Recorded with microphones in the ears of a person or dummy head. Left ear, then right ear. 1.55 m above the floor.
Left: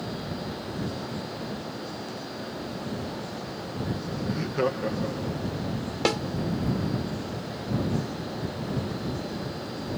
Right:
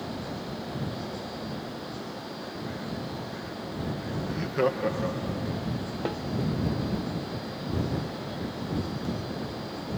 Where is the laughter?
5° right (ahead or behind); by 5.6 s 60° right (ahead or behind).